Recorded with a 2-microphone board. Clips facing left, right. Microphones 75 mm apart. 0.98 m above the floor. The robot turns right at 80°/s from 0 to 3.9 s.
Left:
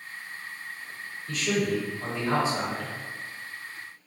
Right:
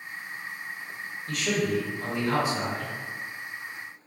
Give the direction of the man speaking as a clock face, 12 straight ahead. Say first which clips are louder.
Even; 2 o'clock.